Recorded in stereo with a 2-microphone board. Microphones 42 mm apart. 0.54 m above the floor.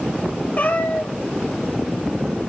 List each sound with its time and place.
0.6 s a cat meowing: 40° left (ahead or behind), 1.4 m